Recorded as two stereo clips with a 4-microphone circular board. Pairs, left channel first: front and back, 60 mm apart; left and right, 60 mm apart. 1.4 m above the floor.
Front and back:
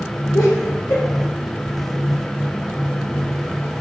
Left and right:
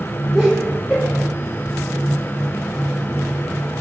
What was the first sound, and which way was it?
Laughter, 5° left.